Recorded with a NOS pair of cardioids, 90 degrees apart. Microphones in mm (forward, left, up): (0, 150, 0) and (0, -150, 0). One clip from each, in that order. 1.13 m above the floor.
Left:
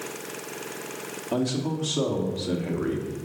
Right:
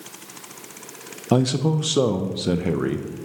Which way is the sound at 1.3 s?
70° right.